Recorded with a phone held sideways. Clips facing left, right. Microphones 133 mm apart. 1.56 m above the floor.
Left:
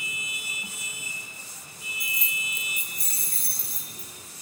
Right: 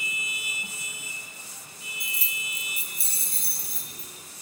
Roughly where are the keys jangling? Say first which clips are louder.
Left 3 dB; right.